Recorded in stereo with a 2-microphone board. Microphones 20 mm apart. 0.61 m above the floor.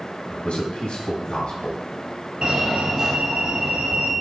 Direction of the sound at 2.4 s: 40° right (ahead or behind).